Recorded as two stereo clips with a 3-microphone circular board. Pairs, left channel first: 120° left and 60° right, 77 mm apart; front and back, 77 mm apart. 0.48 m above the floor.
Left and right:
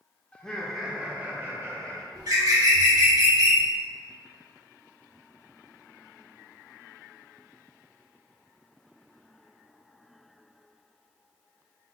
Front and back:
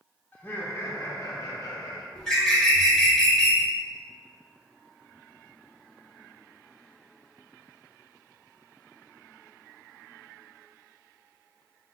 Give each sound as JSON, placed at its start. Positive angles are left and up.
{"t": 0.3, "sound": "laughter", "azimuth_deg": 55, "distance_m": 1.0}
{"t": 2.1, "sound": "a bird", "azimuth_deg": -80, "distance_m": 1.3}